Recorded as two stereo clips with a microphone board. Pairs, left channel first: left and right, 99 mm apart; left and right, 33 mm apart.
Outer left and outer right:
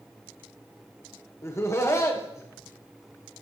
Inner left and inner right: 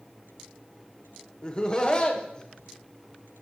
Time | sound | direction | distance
1.4 | laughter | 30° left (ahead or behind) | 1.6 m